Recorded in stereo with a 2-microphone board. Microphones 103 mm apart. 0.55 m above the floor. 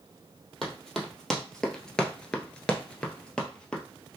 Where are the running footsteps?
5° left (ahead or behind), 1.1 m; by 3.8 s 10° left (ahead or behind), 0.8 m.